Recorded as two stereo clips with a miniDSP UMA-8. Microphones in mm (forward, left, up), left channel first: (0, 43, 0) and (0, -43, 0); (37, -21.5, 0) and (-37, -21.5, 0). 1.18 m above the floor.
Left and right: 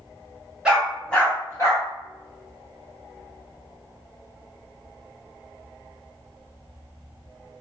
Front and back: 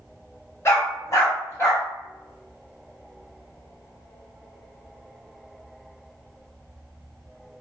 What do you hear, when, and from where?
0.7 s a dog barking: 20° right, 0.8 m; by 1.9 s 50° left, 1.2 m